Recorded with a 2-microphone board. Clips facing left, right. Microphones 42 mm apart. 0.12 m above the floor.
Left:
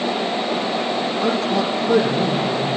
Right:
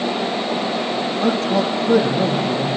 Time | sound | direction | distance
1.2 | a man speaking | 55° right (ahead or behind) | 4.5 m